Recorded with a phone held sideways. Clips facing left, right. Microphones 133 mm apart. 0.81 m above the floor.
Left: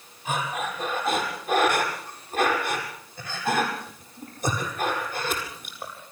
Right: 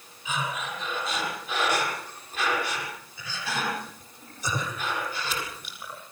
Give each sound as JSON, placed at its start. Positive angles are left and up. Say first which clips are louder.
{"t": 0.2, "sound": "breathing", "louder": "left 3 dB", "side_deg": 50, "distance_m": 7.5}